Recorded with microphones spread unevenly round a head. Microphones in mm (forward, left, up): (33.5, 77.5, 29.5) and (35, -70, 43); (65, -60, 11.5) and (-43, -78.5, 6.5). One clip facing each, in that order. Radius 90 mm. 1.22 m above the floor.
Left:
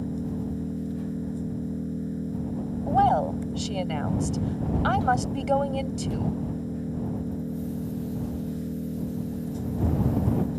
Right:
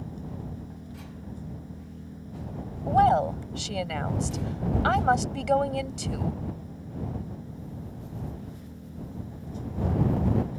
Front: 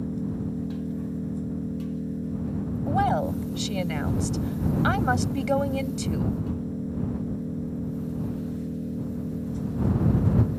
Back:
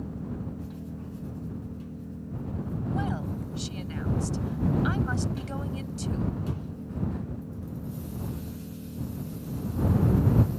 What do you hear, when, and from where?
0.0 s an engine running: 55° left
2.9 s a woman speaking: straight ahead